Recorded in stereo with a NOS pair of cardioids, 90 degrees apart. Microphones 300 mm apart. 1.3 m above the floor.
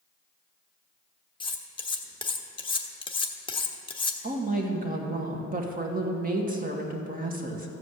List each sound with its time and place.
1.4 s cutlery clinking: 15° left, 1.1 m
4.2 s a woman speaking: 30° right, 2 m